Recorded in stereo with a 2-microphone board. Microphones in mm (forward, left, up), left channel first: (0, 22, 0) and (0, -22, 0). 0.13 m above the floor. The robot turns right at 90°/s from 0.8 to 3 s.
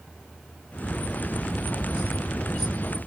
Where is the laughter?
No laughter in this recording.